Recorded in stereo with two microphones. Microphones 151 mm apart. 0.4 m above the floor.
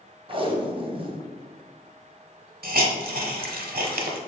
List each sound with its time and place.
0.3 s tape being pulled: 35° right (ahead or behind), 0.6 m
2.6 s a hiss: 90° right, 0.6 m